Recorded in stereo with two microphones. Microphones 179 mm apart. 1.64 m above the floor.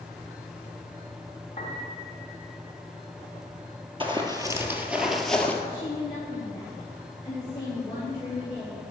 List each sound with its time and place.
1.6 s a piano: 30° left (ahead or behind), 2.5 m
4.0 s running footsteps: 30° right (ahead or behind), 1.9 m; by 5.5 s 10° left (ahead or behind), 1.8 m
5.6 s a woman speaking: 25° left (ahead or behind), 3.5 m